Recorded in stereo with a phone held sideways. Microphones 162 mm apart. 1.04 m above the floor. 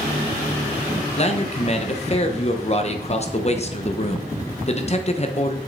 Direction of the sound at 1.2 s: 40° left (ahead or behind).